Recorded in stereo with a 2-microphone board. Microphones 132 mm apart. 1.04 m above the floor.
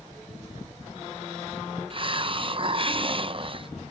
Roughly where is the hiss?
Right.